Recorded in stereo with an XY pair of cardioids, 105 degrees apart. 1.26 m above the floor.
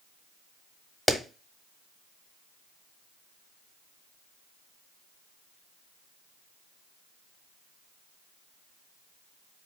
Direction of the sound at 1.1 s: 10° left.